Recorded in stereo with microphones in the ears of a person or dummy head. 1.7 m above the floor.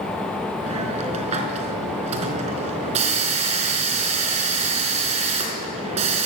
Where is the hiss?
35° right (ahead or behind), 4.5 m.